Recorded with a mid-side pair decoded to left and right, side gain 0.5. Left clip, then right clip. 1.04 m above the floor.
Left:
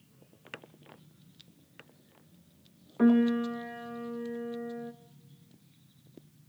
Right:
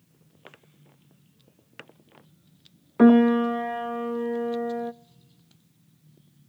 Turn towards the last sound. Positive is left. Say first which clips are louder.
# right 8 dB
turn(degrees=-60)